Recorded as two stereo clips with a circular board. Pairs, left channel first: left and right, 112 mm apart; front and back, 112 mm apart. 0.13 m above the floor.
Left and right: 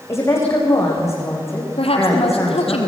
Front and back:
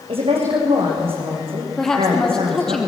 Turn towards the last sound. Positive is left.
turn(degrees=85)